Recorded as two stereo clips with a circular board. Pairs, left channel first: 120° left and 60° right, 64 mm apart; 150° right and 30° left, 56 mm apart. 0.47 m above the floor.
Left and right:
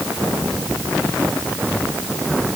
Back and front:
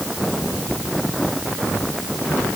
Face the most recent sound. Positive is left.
No sound to turn to.